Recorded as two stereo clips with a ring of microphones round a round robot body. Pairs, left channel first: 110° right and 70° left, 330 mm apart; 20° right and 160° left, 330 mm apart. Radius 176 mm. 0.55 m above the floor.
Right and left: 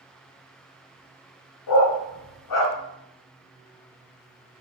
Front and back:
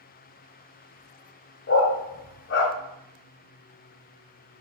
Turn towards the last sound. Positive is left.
turn(degrees=-80)